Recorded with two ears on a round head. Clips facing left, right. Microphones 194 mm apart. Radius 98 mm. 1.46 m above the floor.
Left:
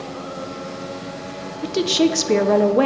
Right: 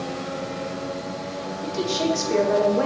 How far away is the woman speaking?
About 0.8 m.